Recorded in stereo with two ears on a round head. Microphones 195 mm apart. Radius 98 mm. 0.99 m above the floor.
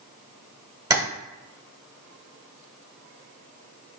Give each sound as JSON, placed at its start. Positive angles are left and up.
{"t": 0.9, "sound": "tapping", "side_deg": -15, "distance_m": 0.9}